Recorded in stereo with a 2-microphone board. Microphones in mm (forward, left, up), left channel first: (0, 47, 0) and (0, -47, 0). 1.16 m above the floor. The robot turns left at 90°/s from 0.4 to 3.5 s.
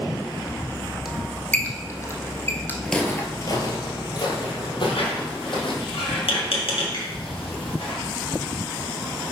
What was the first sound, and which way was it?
A squeak, 5° right (ahead or behind).